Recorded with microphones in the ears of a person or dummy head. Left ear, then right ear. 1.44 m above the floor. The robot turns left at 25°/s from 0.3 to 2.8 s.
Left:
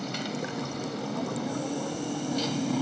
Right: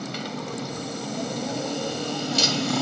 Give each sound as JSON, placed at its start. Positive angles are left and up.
{"t": 0.0, "sound": "a motorcycle", "azimuth_deg": 0}